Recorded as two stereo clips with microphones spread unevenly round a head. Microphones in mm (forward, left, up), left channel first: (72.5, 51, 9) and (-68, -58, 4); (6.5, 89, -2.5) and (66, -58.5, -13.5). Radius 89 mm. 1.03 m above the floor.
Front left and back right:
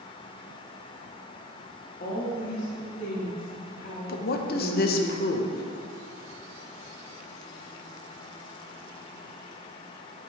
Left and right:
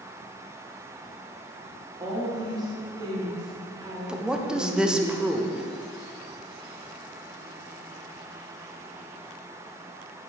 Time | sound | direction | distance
2.0 | a woman speaking | 5° right | 1.7 m
4.1 | a woman speaking | 15° left | 0.8 m